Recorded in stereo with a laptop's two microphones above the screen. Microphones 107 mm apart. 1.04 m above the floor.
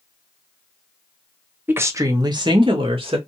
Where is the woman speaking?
20° right (ahead or behind), 0.9 m; by 3.2 s 65° right (ahead or behind), 1.4 m.